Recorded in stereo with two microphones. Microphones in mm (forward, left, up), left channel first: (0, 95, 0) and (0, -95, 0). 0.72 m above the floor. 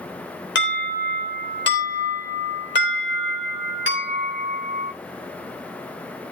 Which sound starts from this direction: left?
An alarm, at 0.6 s.